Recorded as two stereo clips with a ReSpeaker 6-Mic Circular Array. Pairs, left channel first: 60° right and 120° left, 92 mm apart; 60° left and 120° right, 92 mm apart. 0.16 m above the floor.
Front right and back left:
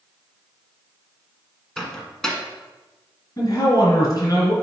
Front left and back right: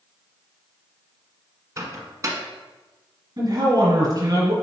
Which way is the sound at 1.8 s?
140° right.